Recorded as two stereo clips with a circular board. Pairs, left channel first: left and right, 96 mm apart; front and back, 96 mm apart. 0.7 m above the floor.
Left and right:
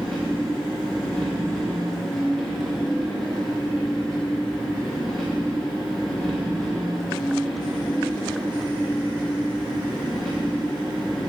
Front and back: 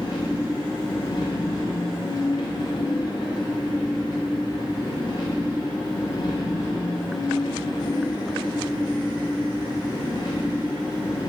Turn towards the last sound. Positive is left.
turn(degrees=5)